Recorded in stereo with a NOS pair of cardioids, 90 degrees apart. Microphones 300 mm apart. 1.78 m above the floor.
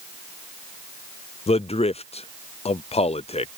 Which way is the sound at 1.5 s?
20° left.